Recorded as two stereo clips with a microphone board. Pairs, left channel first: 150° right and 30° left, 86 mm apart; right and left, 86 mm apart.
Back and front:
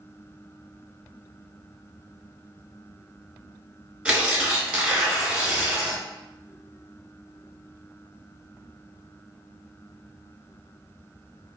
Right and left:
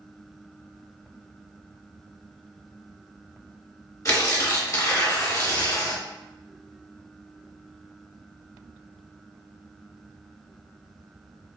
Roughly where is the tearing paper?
Ahead right.